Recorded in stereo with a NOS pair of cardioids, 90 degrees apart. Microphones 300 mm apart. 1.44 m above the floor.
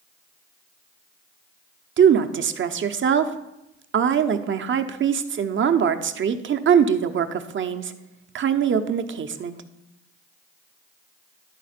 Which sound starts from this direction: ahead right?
A woman speaking, at 2.0 s.